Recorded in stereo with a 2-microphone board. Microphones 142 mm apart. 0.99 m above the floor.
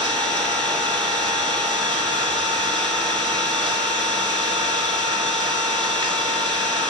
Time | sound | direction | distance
0.0 | an engine running | 35° right (ahead or behind) | 1.3 m